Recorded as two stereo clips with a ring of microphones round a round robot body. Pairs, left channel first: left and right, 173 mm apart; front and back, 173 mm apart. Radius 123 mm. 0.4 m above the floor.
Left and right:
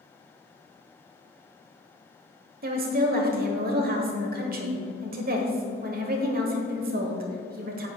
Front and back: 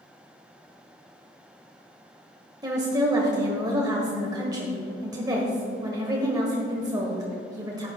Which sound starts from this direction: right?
A woman speaking, at 2.6 s.